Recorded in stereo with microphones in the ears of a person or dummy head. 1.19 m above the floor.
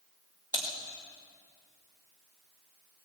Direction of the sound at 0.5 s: 20° left (ahead or behind).